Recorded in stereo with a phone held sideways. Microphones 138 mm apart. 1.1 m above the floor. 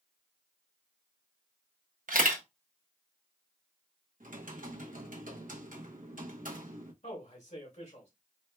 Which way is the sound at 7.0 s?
60° left (ahead or behind).